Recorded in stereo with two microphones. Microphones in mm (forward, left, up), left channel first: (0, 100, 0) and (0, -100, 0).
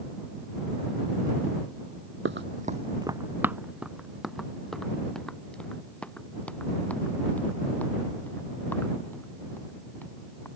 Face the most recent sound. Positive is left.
turn(degrees=10)  # may be behind; listen again after turning